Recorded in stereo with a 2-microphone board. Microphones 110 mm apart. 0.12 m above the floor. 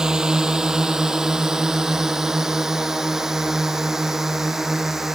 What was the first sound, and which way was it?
A drone, 5° right (ahead or behind).